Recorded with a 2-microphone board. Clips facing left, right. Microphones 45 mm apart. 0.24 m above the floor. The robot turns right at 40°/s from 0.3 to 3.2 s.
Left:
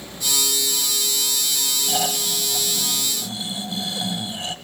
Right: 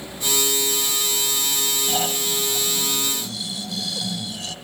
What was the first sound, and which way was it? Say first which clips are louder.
Snoring: left 1 dB; 15° left.